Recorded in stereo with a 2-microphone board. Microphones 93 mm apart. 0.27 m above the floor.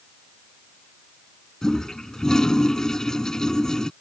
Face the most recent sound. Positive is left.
turn(degrees=5)  # may be behind; listen again after turning